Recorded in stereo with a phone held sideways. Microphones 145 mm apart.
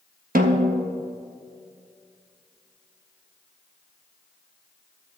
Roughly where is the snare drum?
Right.